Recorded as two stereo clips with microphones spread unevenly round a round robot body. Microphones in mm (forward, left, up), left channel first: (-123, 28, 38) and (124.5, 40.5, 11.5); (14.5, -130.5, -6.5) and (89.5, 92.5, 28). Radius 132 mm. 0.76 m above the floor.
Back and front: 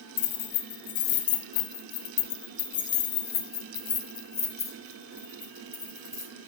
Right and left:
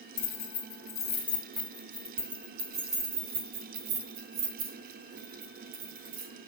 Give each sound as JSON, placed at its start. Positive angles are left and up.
{"t": 0.2, "sound": "keys jangling", "azimuth_deg": -175, "distance_m": 1.7}